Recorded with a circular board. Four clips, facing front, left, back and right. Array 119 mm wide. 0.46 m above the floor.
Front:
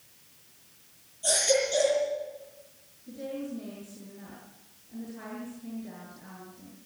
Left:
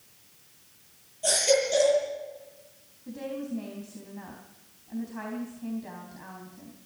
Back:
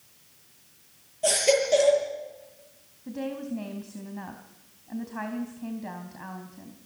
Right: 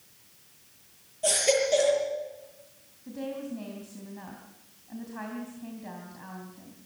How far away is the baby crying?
About 8.5 m.